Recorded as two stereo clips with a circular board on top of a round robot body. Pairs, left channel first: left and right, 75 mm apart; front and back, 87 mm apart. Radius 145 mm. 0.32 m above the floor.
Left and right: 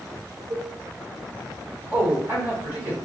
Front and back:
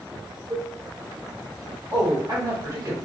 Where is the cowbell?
120° right, 1.0 m.